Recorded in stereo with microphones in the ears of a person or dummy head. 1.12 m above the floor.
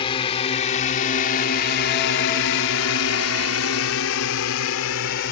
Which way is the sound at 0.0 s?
25° left (ahead or behind).